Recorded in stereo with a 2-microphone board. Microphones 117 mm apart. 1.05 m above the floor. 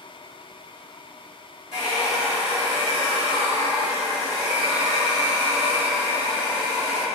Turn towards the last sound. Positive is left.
turn(degrees=50)  # may be behind; listen again after turning